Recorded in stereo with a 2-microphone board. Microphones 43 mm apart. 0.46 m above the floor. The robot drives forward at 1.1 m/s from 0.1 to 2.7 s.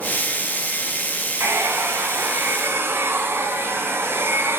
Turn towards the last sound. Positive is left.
turn(degrees=-60)  # may be behind; listen again after turning